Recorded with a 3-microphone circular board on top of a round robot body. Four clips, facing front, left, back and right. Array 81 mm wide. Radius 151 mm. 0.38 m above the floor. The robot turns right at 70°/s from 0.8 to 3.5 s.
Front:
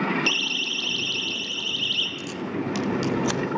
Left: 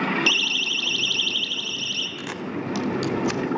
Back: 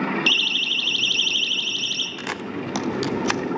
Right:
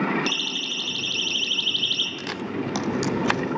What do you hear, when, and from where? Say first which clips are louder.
0.3 s a siren: left 3 dB, back 2 dB; 135° left, 2.5 m; by 2.1 s 155° right, 2.5 m
2.2 s a camera shutter: right 1 dB, even; 170° left, 1.1 m; by 3.4 s 105° right, 1.1 m